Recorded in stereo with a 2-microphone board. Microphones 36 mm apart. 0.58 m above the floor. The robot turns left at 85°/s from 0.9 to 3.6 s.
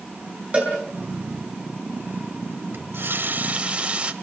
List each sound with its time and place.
0.5 s a cowbell: 35° right (ahead or behind), 7.5 m
2.7 s a running tap: 75° right, 1.6 m; by 4.1 s 150° right, 1.6 m